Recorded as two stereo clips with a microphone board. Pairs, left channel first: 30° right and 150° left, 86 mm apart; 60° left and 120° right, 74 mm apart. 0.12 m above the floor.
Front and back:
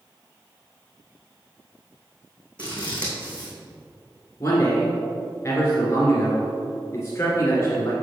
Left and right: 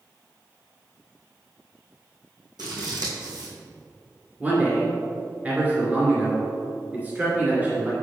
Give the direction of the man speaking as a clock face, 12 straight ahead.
2 o'clock.